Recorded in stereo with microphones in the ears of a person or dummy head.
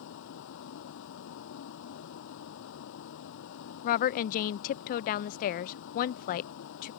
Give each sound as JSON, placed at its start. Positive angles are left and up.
{"t": 0.0, "sound": "a vehicle", "side_deg": 60}
{"t": 3.8, "sound": "a woman speaking", "side_deg": 55}